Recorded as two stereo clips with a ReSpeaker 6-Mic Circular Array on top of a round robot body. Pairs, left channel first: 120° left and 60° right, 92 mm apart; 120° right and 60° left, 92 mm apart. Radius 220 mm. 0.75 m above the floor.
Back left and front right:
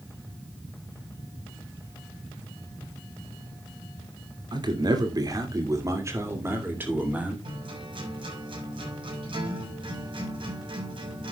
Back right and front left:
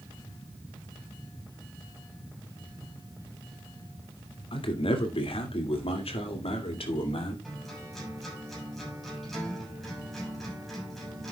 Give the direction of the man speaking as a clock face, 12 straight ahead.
3 o'clock.